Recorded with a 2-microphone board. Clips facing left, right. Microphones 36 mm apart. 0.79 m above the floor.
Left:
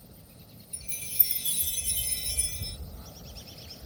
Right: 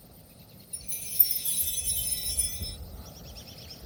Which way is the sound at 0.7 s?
50° left (ahead or behind).